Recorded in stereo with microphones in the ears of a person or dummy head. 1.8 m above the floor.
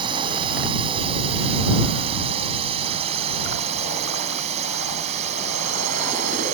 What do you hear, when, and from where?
0.0 s a drone: 35° right (ahead or behind); by 6.5 s 50° right (ahead or behind)